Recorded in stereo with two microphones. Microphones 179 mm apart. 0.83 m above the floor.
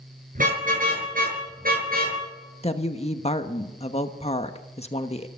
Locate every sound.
0.3 s a car horn: 50° right (ahead or behind), 6.5 m; by 2.2 s 55° right (ahead or behind), 7 m
2.6 s a woman speaking: 35° left (ahead or behind), 1.1 m